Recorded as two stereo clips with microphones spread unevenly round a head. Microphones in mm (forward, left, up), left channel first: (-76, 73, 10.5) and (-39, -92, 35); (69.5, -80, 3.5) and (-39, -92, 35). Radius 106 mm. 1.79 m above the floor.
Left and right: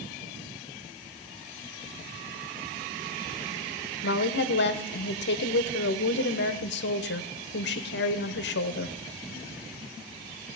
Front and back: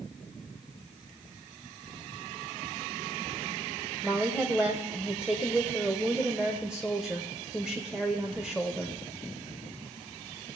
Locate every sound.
4.0 s a woman speaking: 110° left, 1.1 m